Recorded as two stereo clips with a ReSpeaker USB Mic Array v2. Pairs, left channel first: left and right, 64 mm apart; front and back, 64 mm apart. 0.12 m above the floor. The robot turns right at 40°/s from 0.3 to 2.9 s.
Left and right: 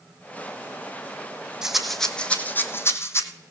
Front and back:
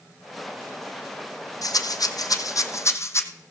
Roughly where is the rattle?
Ahead.